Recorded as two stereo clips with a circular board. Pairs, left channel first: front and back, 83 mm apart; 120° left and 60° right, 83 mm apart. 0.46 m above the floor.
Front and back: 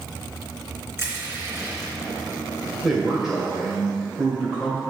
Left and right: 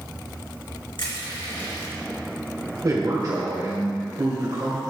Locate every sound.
1.0 s crushing: 125° left, 3 m
2.8 s a man speaking: 95° right, 1.5 m